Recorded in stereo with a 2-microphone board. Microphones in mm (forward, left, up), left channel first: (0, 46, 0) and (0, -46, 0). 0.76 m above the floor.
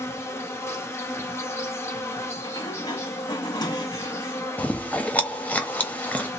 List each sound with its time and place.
0.0 s an insect: 30° left (ahead or behind), 0.8 m
2.4 s a sliding door: 50° left (ahead or behind), 1.0 m
4.6 s chewing: 15° left (ahead or behind), 0.7 m